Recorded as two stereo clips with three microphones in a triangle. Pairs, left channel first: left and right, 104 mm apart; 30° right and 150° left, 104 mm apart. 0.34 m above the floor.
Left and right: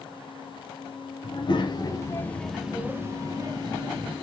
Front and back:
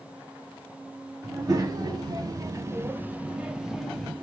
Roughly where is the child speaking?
Left.